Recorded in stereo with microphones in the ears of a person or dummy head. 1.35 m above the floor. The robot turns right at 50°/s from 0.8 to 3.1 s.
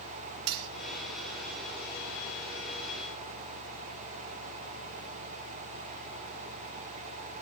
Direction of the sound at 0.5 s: 70° right (ahead or behind).